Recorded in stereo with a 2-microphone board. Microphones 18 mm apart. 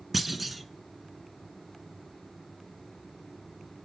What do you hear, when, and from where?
0.1 s a clunk: centre (ahead or behind), 0.7 m